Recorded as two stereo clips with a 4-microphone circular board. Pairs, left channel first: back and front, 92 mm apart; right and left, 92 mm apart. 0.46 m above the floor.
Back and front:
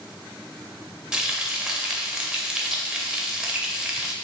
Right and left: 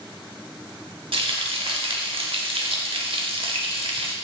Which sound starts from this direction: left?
Frying, at 1.1 s.